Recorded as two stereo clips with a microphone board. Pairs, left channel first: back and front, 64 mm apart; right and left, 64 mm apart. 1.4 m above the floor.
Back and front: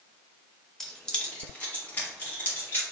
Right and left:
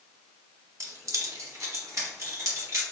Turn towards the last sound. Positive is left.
turn(degrees=125)